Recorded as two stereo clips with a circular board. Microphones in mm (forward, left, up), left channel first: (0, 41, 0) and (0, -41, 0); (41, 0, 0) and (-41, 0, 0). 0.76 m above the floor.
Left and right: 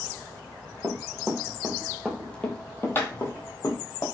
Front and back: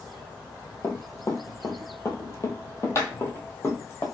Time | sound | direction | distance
0.8 | running footsteps | 50° right | 1.0 m